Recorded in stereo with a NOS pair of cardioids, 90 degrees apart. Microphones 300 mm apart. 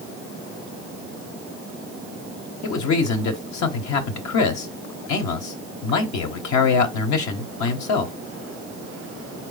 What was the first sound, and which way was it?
A man speaking, 70° left.